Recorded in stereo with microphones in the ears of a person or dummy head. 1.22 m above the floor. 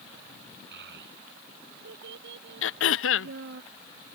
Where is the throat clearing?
80° left.